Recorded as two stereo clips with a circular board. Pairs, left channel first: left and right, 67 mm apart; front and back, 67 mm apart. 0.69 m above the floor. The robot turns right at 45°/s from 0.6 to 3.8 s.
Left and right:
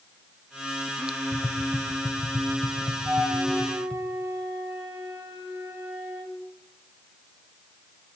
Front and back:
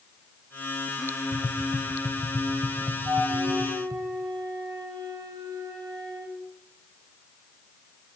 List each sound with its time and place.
1.3 s tapping: 55° left, 2.5 m; by 4.0 s 170° left, 2.5 m
3.0 s a flute: 170° left, 9.5 m; by 6.4 s 155° right, 9.5 m